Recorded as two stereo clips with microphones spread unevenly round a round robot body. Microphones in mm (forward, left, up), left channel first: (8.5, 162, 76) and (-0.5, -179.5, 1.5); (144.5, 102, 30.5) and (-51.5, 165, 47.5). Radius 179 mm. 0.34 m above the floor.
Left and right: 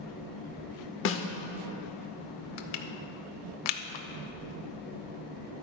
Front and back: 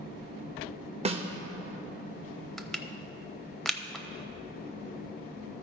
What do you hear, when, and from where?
1.1 s a snare drum: 125° left, 0.8 m
2.6 s crushing: 70° left, 0.8 m